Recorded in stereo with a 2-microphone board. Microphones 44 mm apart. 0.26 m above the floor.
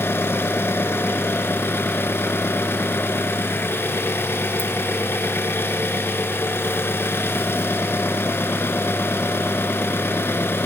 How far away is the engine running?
About 1.2 m.